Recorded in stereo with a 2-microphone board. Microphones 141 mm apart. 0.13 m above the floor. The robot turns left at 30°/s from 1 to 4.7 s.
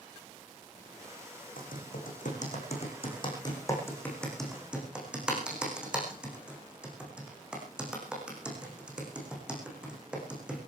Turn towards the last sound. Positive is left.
turn(degrees=-5)  # may be behind; listen again after turning